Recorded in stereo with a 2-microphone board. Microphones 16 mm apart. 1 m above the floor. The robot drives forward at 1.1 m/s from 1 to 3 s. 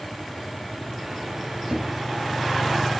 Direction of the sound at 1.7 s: 60° right (ahead or behind).